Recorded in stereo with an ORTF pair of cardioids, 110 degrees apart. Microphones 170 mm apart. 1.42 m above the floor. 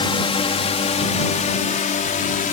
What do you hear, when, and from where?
0.0 s a drone: 30° left; by 2.5 s 50° left